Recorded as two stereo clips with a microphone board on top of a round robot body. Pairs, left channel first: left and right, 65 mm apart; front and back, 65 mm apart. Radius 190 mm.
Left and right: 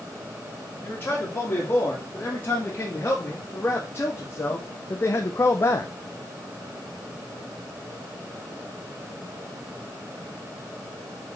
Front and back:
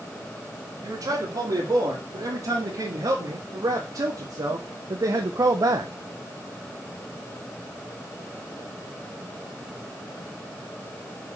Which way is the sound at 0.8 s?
145° left.